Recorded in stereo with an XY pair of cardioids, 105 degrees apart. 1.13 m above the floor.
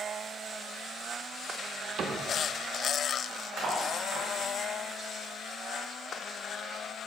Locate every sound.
2.0 s a cupboard door: 60° right, 1.2 m
3.6 s cutlery clinking: 60° right, 3 m